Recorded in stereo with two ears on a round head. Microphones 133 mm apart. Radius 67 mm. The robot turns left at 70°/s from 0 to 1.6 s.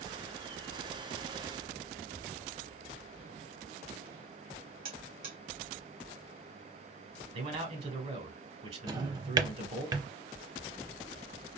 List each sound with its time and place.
4.8 s a buzzer: 60° right (ahead or behind), 2 m
7.3 s a man speaking: 45° right (ahead or behind), 1.6 m
8.9 s a drawer: 25° right (ahead or behind), 0.6 m